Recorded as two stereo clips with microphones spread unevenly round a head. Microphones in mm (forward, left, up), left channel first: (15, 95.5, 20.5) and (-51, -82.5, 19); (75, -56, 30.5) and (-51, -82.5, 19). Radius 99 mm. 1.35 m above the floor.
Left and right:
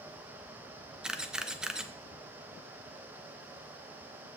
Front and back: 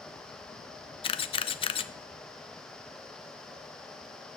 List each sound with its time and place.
1.0 s a camera shutter: 25° right, 0.6 m